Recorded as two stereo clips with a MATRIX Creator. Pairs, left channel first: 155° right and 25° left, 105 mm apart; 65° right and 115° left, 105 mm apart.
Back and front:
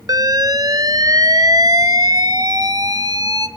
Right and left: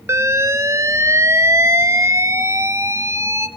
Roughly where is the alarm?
Ahead left.